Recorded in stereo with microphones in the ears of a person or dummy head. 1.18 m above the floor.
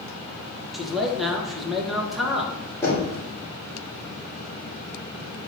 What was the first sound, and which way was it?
A man speaking, centre (ahead or behind).